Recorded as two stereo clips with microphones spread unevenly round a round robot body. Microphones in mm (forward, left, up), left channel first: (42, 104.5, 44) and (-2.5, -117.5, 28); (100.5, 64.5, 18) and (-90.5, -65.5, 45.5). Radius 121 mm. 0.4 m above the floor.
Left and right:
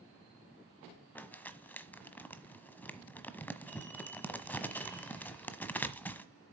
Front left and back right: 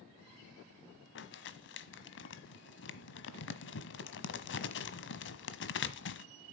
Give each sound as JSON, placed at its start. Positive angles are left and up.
{"t": 1.1, "sound": "crumpling", "azimuth_deg": -5, "distance_m": 1.2}